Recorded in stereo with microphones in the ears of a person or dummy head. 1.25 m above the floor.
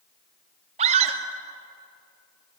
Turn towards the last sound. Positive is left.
turn(degrees=-40)  # may be behind; listen again after turning